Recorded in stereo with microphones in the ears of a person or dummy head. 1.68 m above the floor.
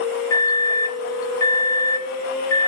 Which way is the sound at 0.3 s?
20° left (ahead or behind).